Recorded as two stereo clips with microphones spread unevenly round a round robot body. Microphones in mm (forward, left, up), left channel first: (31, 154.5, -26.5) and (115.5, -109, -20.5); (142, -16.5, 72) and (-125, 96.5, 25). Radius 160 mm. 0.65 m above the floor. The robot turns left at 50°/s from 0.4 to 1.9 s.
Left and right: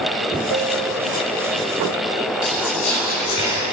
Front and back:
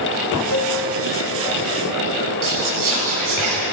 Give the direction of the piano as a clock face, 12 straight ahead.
2 o'clock.